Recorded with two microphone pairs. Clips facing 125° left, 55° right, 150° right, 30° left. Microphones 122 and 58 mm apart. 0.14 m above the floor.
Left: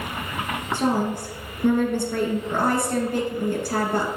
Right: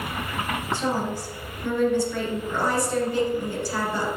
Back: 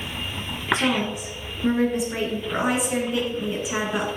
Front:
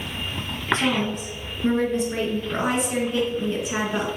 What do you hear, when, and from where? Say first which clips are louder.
0.7 s a woman speaking: left 5 dB, even; 125° left, 2.5 m